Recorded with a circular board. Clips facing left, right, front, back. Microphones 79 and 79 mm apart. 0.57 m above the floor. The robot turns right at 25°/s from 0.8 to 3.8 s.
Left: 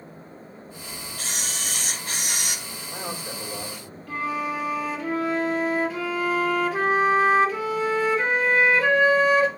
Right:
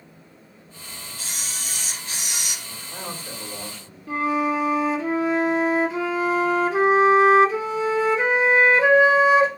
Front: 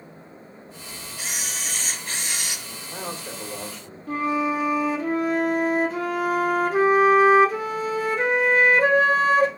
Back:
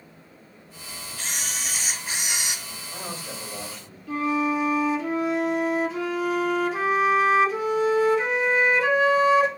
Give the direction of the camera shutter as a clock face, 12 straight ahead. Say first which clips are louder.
Left 3 dB, even; 9 o'clock.